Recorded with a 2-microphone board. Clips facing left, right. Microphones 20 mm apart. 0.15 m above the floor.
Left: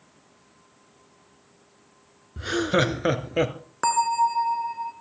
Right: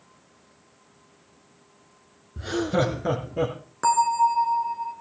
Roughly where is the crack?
I don't hear a crack.